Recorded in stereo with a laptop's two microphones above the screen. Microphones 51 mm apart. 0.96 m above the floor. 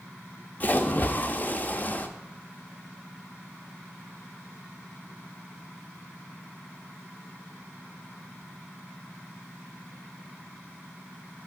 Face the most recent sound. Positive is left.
turn(degrees=35)  # may be behind; listen again after turning